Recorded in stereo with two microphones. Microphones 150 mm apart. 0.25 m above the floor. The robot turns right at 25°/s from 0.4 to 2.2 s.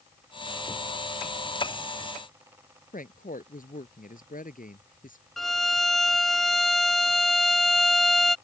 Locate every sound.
2.9 s a woman speaking: 65° left (ahead or behind)
5.4 s a violin: centre (ahead or behind)